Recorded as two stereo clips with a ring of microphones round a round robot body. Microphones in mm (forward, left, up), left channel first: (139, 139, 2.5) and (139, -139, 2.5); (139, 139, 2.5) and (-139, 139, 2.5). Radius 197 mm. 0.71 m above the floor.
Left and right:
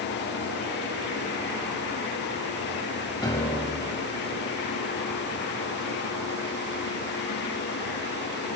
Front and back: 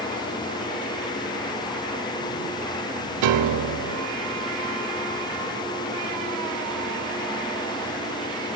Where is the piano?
170° left, 1.0 m.